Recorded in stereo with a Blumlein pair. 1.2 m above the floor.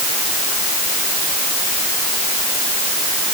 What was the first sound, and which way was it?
Only background noise.